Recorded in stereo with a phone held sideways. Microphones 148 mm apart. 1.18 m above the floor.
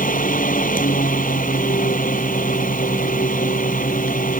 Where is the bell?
No bell in this recording.